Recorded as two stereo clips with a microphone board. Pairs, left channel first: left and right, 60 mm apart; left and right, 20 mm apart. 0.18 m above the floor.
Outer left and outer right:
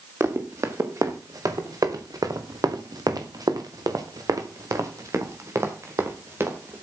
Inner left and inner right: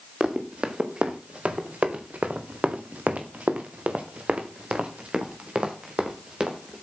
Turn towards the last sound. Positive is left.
turn(degrees=-40)  # may be behind; listen again after turning